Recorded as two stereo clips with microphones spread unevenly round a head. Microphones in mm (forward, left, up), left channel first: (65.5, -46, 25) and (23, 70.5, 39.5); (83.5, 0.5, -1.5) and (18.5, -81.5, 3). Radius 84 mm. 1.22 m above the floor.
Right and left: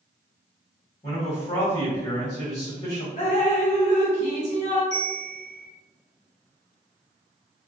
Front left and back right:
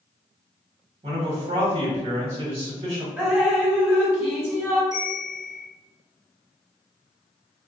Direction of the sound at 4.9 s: 160° left.